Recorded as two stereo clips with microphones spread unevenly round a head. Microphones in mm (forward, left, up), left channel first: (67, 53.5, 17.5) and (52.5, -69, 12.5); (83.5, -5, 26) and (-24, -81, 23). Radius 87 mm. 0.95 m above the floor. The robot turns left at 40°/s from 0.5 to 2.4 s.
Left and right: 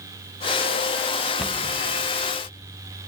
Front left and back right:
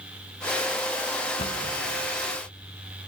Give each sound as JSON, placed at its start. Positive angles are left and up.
{"t": 1.4, "sound": "a cupboard door", "azimuth_deg": -5, "distance_m": 1.0}